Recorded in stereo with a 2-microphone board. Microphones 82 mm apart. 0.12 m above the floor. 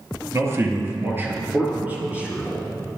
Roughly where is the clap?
I don't hear a clap.